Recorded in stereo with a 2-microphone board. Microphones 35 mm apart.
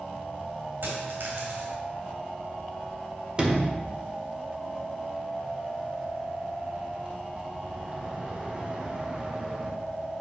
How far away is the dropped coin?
About 2.5 m.